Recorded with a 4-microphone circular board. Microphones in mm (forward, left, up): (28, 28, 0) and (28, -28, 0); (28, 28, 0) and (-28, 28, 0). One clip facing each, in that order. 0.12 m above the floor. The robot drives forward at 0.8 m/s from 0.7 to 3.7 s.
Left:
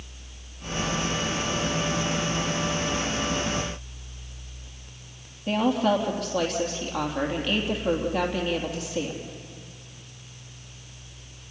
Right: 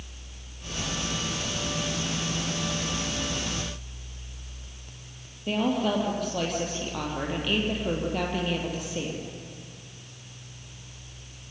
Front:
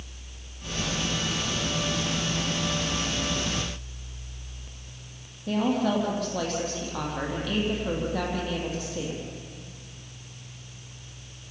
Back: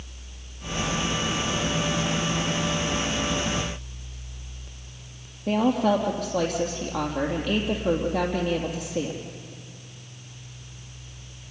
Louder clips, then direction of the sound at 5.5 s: Left 3 dB, back 4 dB; 175° left.